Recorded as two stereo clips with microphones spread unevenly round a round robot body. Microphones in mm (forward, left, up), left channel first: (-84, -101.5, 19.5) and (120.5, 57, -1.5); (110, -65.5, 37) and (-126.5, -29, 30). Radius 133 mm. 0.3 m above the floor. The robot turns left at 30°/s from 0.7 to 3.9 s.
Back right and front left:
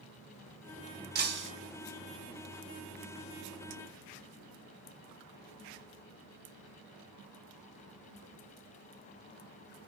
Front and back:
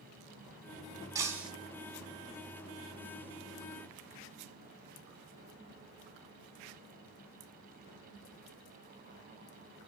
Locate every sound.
1.1 s breaking glass: 95° left, 0.8 m; by 1.5 s 85° left, 0.8 m